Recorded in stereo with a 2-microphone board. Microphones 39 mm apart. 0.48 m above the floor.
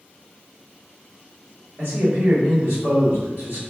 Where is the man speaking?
45° right (ahead or behind), 1.3 m.